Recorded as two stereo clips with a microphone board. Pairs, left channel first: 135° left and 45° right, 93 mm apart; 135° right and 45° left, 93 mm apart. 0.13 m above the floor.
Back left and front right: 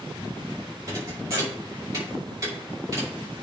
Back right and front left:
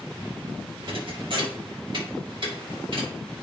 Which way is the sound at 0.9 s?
15° left.